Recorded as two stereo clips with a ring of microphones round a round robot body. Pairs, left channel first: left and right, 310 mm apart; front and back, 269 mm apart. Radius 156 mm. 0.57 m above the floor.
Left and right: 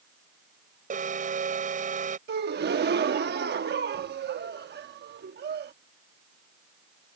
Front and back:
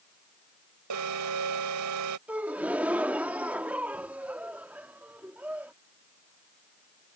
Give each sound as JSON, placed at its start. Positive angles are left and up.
{"t": 0.9, "sound": "an alarm", "azimuth_deg": -155}
{"t": 2.3, "sound": "a gasp", "azimuth_deg": -100}